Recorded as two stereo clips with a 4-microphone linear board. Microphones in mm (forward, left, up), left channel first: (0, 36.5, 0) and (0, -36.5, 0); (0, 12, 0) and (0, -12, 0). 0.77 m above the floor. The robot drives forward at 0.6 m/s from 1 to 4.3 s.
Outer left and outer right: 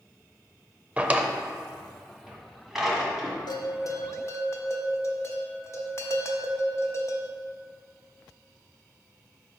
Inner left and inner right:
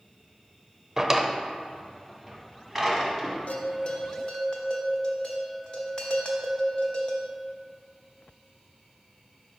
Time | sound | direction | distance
1.0 | a drawer | 20° right (ahead or behind) | 0.5 m
3.5 | a bell | 70° left (ahead or behind) | 0.5 m